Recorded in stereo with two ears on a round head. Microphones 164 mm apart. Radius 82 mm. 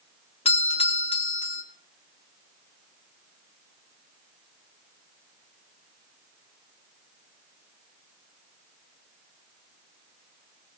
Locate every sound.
0.5 s a doorbell: 35° left (ahead or behind), 1.3 m